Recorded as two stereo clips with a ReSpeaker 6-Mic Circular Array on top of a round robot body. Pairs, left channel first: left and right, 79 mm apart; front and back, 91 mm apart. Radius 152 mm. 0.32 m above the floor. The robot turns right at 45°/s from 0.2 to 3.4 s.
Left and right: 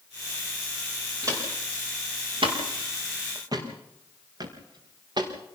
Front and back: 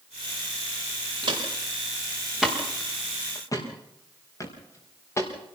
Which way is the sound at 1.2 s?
145° right.